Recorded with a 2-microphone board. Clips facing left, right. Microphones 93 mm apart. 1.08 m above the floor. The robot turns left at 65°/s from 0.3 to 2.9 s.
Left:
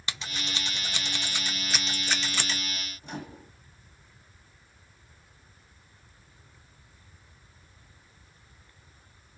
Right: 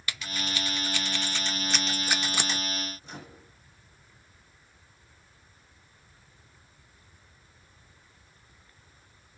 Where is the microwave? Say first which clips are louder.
Left 5 dB; 65° left (ahead or behind), 1.7 m.